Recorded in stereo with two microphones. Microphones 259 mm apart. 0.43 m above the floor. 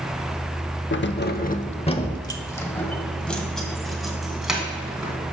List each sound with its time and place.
0.9 s keys jangling: 45° left (ahead or behind), 0.6 m; by 5.1 s 5° right (ahead or behind), 2.5 m